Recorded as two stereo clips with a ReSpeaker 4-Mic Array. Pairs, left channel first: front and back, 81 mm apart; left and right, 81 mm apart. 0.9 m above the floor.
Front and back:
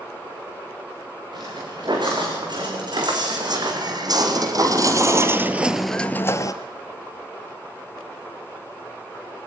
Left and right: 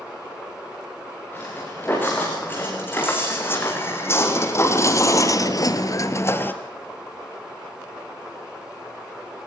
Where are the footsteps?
155° left, 7 m; by 6.5 s 30° left, 1.4 m.